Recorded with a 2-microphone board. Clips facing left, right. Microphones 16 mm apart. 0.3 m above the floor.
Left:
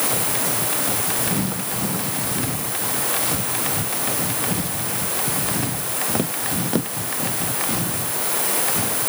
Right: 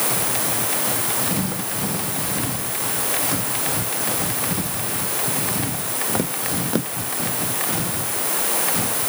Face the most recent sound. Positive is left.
No sound to turn to.